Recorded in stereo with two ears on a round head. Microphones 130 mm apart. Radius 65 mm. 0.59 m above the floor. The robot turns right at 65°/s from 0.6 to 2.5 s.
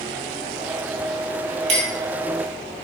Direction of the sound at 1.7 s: 50° right (ahead or behind).